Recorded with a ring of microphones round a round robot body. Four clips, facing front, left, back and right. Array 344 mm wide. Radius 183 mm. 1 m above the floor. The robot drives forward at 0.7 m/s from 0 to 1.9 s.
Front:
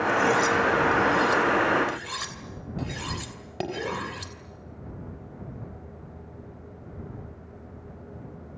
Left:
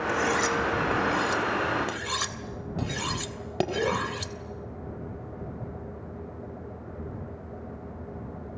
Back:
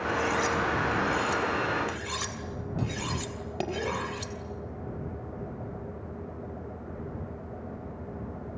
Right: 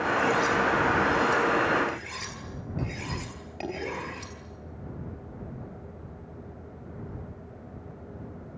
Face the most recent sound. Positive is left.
turn(degrees=90)